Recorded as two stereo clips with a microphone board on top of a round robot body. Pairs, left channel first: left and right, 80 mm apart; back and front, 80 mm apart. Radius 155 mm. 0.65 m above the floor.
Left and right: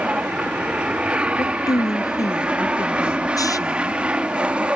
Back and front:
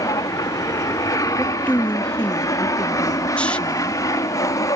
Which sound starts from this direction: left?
A woman speaking, at 1.4 s.